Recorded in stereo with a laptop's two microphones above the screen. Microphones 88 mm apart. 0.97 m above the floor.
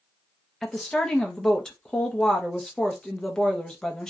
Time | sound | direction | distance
0.6 | a woman speaking | 10° left (ahead or behind) | 0.6 m